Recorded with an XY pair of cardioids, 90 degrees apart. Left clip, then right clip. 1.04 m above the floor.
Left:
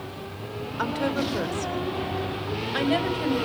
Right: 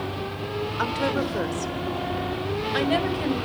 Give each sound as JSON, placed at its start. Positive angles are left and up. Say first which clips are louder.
{"t": 0.8, "sound": "a woman speaking", "louder": "right 1 dB", "azimuth_deg": -15, "distance_m": 3.0}